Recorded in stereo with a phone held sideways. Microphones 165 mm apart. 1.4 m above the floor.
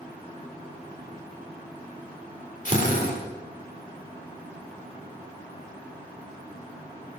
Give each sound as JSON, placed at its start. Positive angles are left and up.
{"t": 2.6, "sound": "a drill", "side_deg": 55, "distance_m": 3.5}